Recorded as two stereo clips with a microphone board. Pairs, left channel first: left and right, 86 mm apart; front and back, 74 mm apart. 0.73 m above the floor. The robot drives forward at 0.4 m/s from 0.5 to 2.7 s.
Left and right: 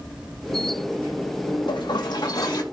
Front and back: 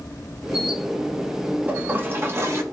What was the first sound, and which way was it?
A toilet flushing, 115° left.